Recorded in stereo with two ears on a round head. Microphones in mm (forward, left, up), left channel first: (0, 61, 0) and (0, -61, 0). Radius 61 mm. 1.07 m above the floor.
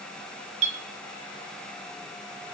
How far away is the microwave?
No microwave in this recording.